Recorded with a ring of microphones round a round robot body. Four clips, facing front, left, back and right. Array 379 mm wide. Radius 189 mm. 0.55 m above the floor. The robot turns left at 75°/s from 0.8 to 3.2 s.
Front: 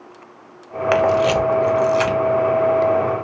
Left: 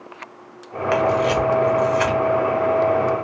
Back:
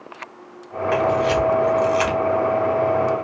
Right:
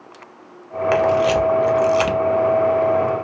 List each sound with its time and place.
0.9 s a camera shutter: straight ahead, 0.5 m; by 2.2 s 95° right, 0.5 m